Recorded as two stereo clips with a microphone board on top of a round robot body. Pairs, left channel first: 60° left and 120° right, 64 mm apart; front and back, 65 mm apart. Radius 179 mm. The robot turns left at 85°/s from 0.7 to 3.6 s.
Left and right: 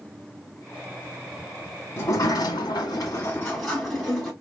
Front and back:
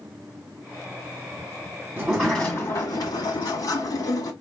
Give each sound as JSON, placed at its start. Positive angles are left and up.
{"t": 2.0, "sound": "a sliding door", "azimuth_deg": 110, "distance_m": 1.2}